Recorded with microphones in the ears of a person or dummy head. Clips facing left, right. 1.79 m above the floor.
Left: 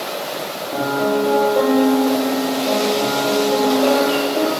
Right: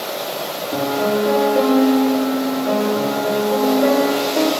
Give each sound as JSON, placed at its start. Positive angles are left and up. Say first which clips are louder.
{"t": 0.7, "sound": "a piano", "louder": "even", "side_deg": -20, "distance_m": 4.0}